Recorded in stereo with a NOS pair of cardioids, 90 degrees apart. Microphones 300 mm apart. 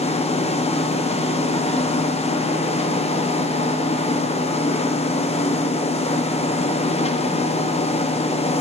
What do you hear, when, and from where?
0.0 s a machine running: 20° left, 0.9 m